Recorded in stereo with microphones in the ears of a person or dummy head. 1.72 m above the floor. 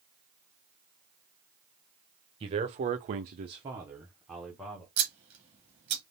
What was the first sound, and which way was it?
A man speaking, 30° right (ahead or behind).